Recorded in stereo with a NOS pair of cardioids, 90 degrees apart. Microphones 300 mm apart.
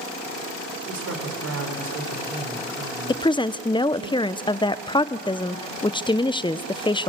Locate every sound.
0.9 s a woman speaking: 50° right, 4.5 m
3.1 s a woman speaking: 15° left, 0.5 m